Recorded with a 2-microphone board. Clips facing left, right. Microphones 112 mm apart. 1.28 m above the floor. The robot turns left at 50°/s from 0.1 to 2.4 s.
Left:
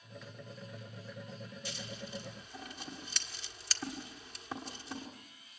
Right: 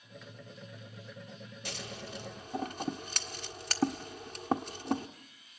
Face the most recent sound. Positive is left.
turn(degrees=-55)  # may be behind; listen again after turning